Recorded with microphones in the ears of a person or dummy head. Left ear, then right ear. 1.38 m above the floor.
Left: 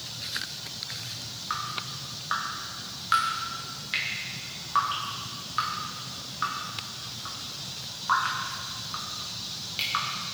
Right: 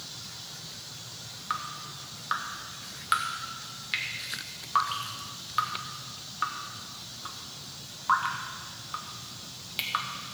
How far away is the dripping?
About 1.5 m.